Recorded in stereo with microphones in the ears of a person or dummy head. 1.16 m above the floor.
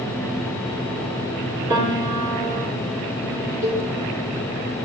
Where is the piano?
20° right (ahead or behind), 2.5 m.